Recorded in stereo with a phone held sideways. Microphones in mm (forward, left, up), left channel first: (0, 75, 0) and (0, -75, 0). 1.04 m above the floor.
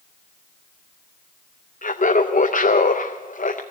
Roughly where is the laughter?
Left.